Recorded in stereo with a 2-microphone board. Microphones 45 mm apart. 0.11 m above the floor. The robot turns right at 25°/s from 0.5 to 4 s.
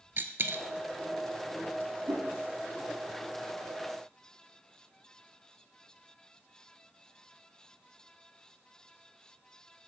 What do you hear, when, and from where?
0.2 s a dropped coin: 55° right (ahead or behind), 0.5 m
2.1 s a whoosh: 80° right, 3 m; by 2.3 s 85° right, 3 m